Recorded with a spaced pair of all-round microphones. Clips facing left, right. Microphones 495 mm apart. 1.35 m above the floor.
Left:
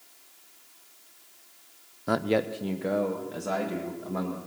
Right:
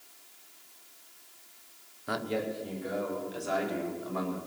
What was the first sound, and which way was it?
A man speaking, 65° left (ahead or behind).